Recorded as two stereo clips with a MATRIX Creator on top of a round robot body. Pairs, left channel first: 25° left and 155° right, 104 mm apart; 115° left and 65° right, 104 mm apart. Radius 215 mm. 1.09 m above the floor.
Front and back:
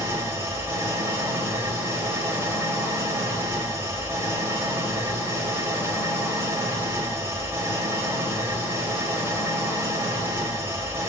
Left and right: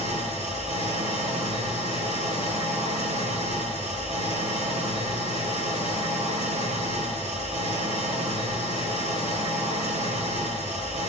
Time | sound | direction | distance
0.0 | an engine running | 90° right | 3 m